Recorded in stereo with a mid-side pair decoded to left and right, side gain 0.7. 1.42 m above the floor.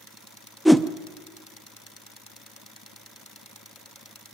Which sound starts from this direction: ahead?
A whoosh, at 0.7 s.